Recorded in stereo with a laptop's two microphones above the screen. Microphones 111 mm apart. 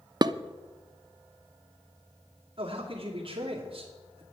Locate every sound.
0.2 s dishes clattering: 40° right (ahead or behind), 0.5 m
2.6 s a man speaking: 50° right (ahead or behind), 2.5 m